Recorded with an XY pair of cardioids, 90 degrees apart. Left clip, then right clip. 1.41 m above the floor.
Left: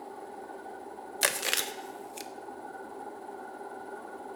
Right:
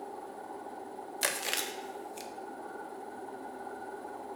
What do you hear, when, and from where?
1.2 s chewing: 40° left, 0.5 m